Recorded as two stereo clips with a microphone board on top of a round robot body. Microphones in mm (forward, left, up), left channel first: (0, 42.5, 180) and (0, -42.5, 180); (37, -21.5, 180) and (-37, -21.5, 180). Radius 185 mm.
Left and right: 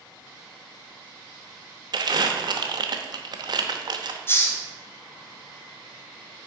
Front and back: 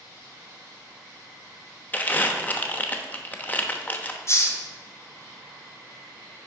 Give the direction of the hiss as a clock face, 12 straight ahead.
11 o'clock.